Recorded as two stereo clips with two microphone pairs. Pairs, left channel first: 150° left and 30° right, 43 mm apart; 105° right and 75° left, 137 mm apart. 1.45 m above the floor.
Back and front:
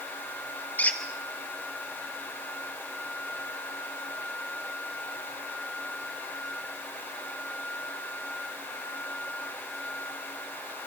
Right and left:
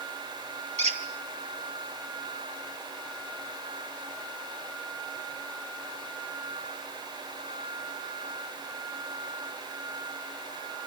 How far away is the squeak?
About 3 m.